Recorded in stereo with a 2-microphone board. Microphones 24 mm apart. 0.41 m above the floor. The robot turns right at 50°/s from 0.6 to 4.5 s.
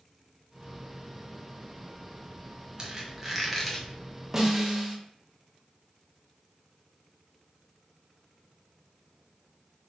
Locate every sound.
2.8 s a squeak: 35° right, 1.4 m; by 3.9 s 20° left, 1.4 m
4.3 s a snare drum: 15° right (ahead or behind), 1.4 m; by 5.0 s 10° right (ahead or behind), 1.4 m